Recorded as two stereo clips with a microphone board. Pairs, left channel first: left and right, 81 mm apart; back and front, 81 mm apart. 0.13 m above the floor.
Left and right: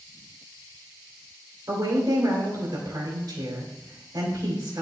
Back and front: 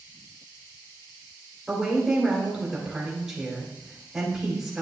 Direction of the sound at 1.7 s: 80° right.